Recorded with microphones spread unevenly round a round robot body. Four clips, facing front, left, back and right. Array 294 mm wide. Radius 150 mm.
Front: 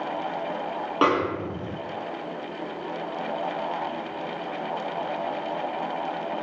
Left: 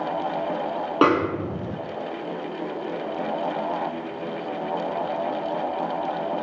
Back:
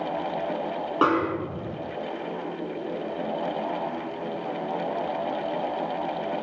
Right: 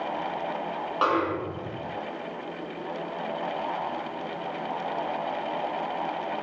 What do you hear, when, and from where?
1.0 s a snare drum: 95° left, 2.5 m